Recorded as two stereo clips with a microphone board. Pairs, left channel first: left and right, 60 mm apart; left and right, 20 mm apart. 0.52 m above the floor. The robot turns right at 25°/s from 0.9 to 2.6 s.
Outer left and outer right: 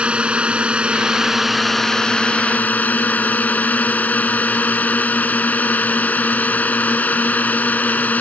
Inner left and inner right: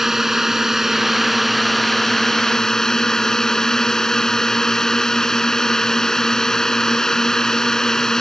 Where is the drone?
15° right; by 8.2 s 25° left.